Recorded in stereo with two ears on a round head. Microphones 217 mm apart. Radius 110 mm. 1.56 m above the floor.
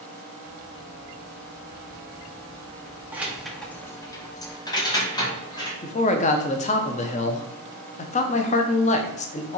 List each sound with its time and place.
3.1 s keys jangling: 5° right (ahead or behind), 0.7 m; by 5.7 s 15° left (ahead or behind), 1.7 m
5.8 s a man speaking: 30° left (ahead or behind), 0.5 m